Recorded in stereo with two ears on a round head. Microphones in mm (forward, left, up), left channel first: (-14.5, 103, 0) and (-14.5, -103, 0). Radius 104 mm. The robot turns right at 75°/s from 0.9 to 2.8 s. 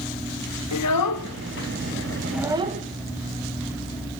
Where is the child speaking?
75° left (ahead or behind), 0.9 m; by 2.8 s 35° right (ahead or behind), 0.9 m.